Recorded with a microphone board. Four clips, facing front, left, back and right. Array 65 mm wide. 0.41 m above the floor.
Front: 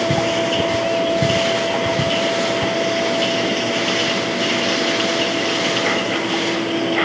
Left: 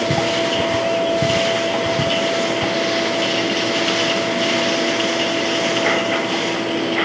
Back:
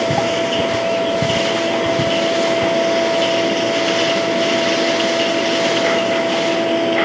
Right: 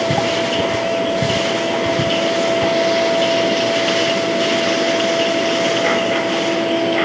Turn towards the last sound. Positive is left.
No sound to turn to.